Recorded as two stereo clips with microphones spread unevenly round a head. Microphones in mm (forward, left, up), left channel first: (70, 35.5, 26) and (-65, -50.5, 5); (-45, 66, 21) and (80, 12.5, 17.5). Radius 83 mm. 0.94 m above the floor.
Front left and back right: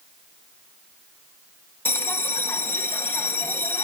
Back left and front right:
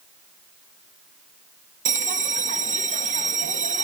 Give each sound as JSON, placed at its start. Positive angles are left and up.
{"t": 1.9, "sound": "a bell", "azimuth_deg": -50, "distance_m": 1.5}